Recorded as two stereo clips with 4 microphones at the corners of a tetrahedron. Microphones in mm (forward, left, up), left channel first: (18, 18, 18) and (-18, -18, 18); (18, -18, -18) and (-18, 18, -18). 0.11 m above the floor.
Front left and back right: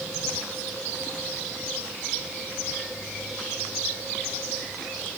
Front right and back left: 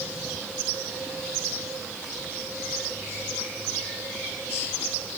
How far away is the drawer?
I don't hear a drawer.